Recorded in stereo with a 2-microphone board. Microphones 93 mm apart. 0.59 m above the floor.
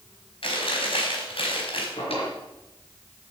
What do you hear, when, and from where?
0.4 s chewing: 75° left (ahead or behind), 4 m
2.0 s a drawer: 85° left, 4.5 m